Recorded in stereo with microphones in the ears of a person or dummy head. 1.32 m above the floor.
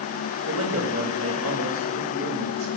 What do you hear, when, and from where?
0.5 s a man speaking: 85° right, 4 m